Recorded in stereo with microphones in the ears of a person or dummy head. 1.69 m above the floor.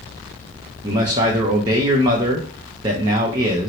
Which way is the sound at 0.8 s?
20° right (ahead or behind).